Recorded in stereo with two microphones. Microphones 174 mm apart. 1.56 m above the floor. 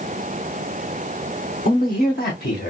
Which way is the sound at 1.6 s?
60° left (ahead or behind).